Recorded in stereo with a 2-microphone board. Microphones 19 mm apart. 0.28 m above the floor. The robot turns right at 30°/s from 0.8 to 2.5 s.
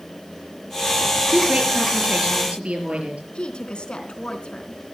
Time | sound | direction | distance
1.3 | a woman speaking | 110° right | 5 m
3.4 | a woman speaking | 50° left (ahead or behind) | 3 m